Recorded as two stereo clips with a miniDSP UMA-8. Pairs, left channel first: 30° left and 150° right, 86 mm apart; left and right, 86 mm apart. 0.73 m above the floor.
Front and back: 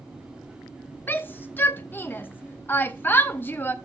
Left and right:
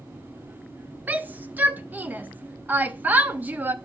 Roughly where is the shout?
Ahead right.